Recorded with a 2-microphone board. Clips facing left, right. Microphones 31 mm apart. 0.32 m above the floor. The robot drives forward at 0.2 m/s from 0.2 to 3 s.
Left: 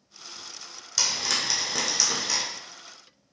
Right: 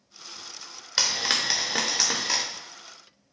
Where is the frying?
40° right (ahead or behind), 0.5 m; by 2.4 s 25° right (ahead or behind), 0.8 m.